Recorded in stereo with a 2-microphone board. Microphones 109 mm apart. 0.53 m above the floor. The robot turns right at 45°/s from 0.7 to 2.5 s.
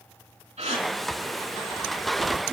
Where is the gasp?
85° right, 3.5 m; by 0.9 s 75° right (ahead or behind), 3.5 m.